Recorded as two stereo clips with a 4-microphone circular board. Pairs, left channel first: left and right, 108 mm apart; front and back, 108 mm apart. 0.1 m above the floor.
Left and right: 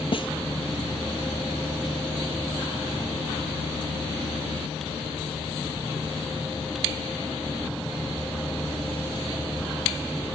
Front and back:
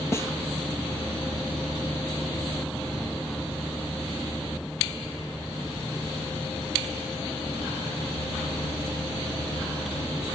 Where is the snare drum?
60° left, 1.1 m.